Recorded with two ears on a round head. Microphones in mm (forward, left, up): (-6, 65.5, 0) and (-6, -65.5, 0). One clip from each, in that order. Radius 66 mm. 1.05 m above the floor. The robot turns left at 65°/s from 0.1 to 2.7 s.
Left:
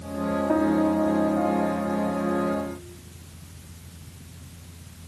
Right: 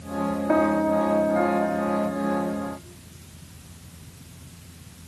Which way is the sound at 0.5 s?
70° right.